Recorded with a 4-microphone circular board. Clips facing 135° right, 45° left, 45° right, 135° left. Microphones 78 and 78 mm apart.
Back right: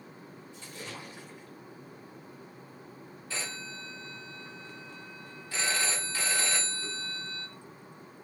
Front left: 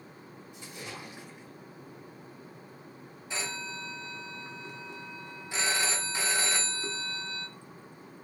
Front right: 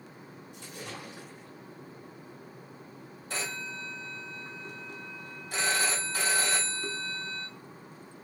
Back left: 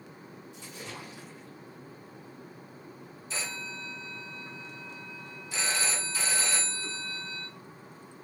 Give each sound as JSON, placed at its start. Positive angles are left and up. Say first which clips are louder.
{"t": 0.5, "sound": "a splash", "louder": "front left 1 dB, front right 1 dB", "azimuth_deg": -25, "distance_m": 1.1}
{"t": 3.3, "sound": "a phone ringing", "louder": "front left 3 dB, front right 2 dB", "azimuth_deg": -20, "distance_m": 0.7}